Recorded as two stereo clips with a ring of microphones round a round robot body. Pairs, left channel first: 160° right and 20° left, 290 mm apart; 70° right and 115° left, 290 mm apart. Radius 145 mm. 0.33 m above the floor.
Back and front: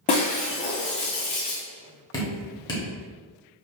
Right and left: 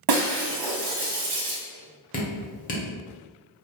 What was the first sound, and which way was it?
Breaking glass, 135° left.